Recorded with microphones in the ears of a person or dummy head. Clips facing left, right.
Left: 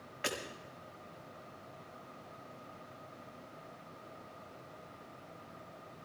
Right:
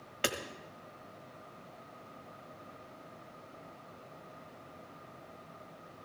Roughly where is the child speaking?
No child speaking in this recording.